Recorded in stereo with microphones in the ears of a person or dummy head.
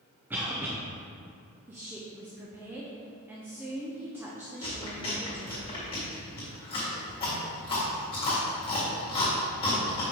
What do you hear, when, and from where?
0.3 s a cough: 10° right (ahead or behind), 0.7 m
1.7 s a woman speaking: 5° right (ahead or behind), 0.7 m
4.6 s chewing: 30° left (ahead or behind), 1.9 m